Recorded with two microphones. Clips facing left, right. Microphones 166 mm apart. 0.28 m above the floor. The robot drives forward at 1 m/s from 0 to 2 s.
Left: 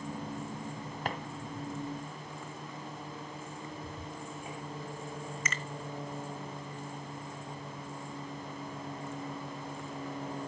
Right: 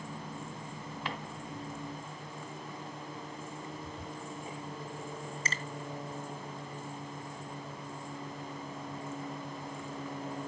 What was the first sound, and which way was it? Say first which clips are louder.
A drawer: left 3 dB; 45° left (ahead or behind).